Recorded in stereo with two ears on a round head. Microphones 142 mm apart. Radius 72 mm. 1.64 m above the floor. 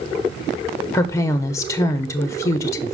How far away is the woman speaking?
About 0.9 m.